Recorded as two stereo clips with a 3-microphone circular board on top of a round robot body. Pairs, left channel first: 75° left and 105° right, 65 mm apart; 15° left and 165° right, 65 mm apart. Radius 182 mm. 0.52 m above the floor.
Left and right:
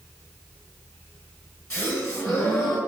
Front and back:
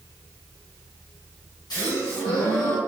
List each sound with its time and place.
1.7 s a gasp: 25° left, 1.2 m